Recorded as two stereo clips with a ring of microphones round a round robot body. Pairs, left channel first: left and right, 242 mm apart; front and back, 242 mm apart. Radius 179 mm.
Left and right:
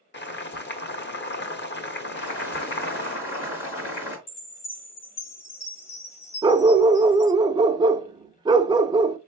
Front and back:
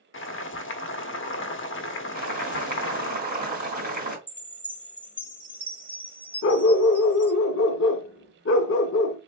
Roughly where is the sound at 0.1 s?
Ahead left.